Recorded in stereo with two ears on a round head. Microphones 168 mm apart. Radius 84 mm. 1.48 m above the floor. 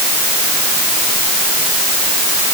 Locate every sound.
Only background noise.